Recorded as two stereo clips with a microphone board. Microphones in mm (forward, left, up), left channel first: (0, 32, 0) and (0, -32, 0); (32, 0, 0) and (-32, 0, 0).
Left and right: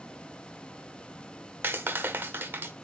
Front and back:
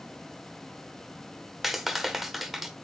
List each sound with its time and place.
1.6 s a clap: 100° right, 1.0 m